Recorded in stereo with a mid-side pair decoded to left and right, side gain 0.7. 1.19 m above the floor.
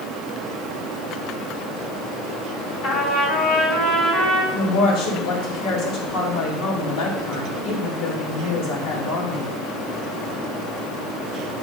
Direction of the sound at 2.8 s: 65° left.